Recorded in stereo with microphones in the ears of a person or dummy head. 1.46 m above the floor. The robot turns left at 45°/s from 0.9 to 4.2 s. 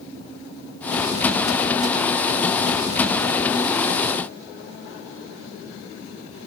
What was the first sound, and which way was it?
Only background noise.